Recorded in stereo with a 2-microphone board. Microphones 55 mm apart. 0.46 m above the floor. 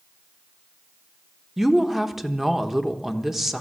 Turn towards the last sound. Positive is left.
turn(degrees=-5)  # may be behind; listen again after turning